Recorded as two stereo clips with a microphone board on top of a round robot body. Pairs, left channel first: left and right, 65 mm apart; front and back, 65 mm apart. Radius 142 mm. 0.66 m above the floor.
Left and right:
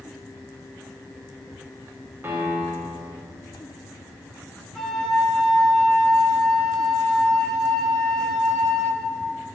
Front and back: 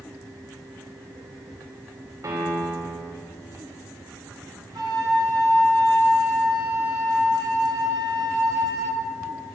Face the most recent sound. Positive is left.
turn(degrees=180)